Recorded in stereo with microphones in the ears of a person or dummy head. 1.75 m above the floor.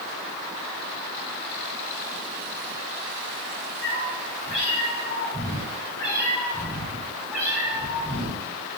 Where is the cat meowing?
45° left (ahead or behind), 2 m; by 8.4 s 15° right (ahead or behind), 2.5 m.